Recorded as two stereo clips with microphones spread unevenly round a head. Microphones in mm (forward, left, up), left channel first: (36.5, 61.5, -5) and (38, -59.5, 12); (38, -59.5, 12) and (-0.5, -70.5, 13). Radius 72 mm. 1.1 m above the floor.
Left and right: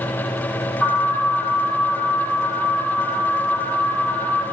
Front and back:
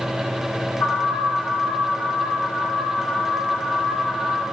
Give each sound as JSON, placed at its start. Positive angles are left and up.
{"t": 0.8, "sound": "an alarm", "azimuth_deg": 20, "distance_m": 7.5}